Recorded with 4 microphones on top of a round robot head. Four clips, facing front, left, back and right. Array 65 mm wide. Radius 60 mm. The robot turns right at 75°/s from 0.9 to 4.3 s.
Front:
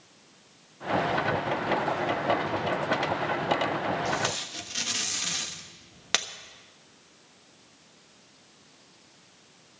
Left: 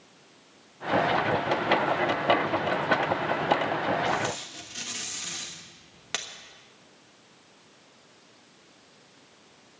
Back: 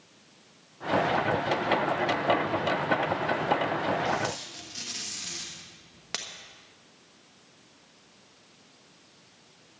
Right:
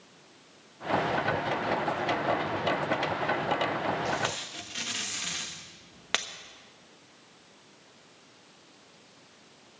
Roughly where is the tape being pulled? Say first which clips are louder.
Left 3 dB, even; ahead right.